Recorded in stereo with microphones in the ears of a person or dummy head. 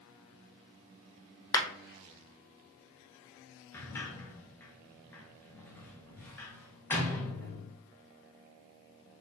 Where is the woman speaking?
No woman speaking in this recording.